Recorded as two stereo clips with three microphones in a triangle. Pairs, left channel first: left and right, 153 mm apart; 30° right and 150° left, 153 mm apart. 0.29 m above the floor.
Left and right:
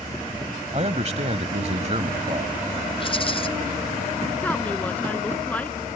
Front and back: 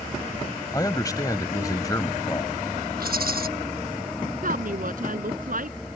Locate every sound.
0.7 s a man speaking: 85° right
3.0 s a rattle: 145° left
4.4 s a woman speaking: 170° left